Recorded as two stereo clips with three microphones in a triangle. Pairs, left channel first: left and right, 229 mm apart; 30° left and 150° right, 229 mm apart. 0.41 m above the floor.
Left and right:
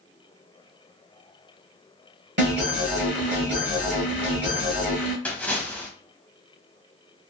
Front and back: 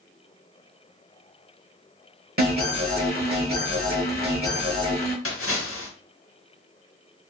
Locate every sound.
2.4 s an alarm: 115° right, 1.1 m
5.2 s a splash: 5° left, 0.7 m